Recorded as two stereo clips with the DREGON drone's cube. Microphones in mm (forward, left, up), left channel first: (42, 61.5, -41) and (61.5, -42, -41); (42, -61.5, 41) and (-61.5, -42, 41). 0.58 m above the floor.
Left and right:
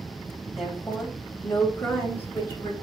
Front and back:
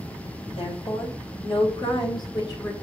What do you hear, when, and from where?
0.6 s a woman speaking: 10° left, 3.5 m; by 2.9 s 40° left, 3.5 m